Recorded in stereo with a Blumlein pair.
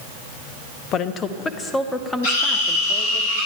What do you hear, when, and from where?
0.9 s a woman speaking: 30° left, 0.9 m; by 3.2 s straight ahead, 1.9 m
2.2 s a scream: 60° left, 7.5 m